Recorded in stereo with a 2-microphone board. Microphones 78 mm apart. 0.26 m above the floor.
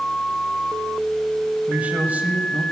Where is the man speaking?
20° right (ahead or behind), 1.2 m.